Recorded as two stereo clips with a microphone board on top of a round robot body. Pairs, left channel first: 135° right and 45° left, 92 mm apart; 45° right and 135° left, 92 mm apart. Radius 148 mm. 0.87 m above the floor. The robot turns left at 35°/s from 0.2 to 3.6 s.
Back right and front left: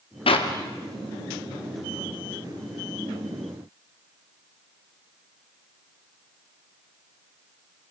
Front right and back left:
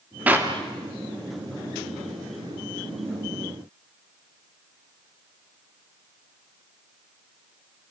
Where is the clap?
150° right, 2.0 m; by 0.5 s 160° right, 2.0 m.